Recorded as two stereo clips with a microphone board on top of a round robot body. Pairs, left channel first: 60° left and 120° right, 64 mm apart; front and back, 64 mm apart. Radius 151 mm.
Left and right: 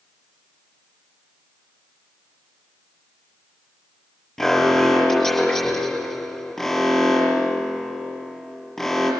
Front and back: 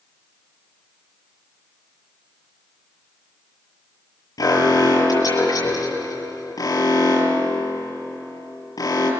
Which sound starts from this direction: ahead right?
An alarm, at 4.4 s.